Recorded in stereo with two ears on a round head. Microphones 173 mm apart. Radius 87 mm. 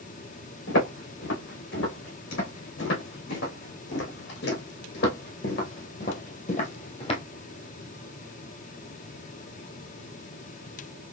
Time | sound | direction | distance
0.7 | footsteps | 75° left (ahead or behind) | 4 m